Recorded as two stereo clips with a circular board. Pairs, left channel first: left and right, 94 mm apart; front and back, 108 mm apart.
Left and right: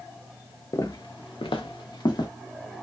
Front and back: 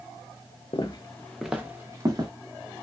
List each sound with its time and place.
0.7 s footsteps: 40° left, 0.6 m; by 2.3 s 130° left, 0.9 m